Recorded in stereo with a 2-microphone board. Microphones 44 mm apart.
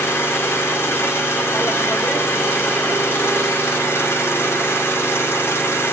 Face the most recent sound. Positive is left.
turn(degrees=75)  # may be behind; listen again after turning